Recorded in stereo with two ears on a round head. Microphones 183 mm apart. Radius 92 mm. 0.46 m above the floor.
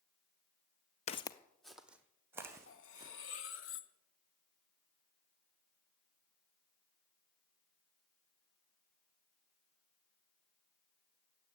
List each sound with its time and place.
1.1 s footsteps: 30° left (ahead or behind), 0.6 m; by 3.1 s 15° right (ahead or behind), 2.5 m
2.7 s cutlery clinking: 65° left (ahead or behind), 1.1 m